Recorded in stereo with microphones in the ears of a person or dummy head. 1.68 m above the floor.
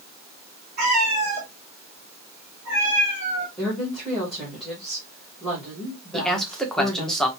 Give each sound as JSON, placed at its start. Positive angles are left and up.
{"t": 0.8, "sound": "a cat meowing", "side_deg": -40, "distance_m": 1.6}
{"t": 3.6, "sound": "a woman speaking", "side_deg": 0, "distance_m": 1.6}
{"t": 6.1, "sound": "a man speaking", "side_deg": 5, "distance_m": 0.8}